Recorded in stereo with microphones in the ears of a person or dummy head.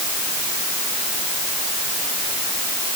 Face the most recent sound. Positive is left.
No sound to turn to.